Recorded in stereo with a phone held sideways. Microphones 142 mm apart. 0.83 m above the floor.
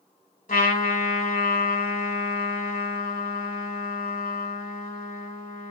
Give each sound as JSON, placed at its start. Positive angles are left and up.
{"t": 0.5, "sound": "a trumpet", "side_deg": 65, "distance_m": 1.4}